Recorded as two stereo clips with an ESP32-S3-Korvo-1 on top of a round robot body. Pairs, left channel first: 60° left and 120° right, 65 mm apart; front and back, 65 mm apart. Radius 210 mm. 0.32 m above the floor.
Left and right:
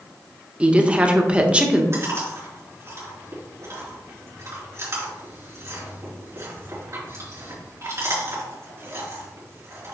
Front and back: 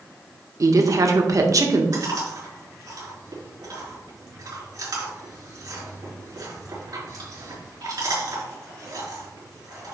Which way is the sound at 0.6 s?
170° left.